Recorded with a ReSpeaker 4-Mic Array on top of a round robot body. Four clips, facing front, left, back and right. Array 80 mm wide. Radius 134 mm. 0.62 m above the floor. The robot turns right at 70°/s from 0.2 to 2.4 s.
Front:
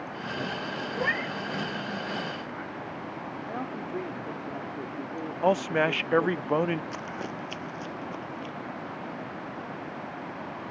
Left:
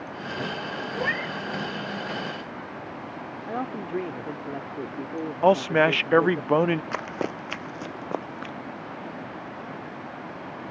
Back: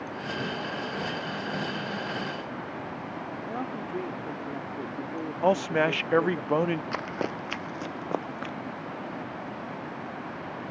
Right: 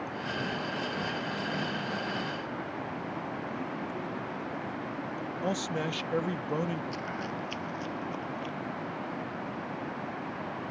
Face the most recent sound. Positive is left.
turn(degrees=140)